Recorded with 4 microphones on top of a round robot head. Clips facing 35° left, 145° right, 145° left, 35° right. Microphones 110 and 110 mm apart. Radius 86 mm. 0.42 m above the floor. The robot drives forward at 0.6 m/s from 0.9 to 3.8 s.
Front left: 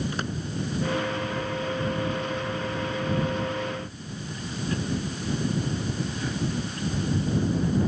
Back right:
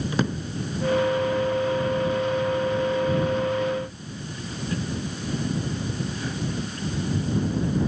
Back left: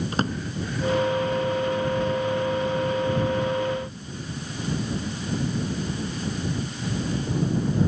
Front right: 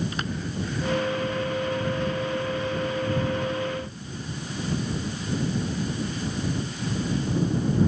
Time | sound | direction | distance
0.1 | a drawer | 155° right | ?